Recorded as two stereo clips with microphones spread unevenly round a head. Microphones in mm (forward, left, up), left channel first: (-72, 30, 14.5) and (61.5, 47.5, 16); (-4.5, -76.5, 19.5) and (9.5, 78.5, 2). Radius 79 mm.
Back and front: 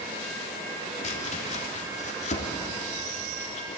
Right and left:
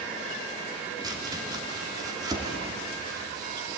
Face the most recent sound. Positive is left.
turn(degrees=150)